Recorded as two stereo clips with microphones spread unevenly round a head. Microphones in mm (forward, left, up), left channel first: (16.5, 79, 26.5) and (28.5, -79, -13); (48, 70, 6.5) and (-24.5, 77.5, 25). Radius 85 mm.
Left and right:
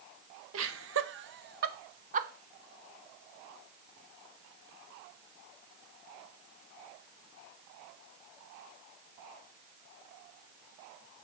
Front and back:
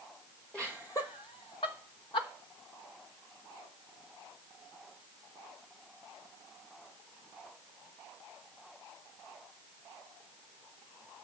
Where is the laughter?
95° right, 1.0 m; by 2.3 s 35° right, 1.2 m.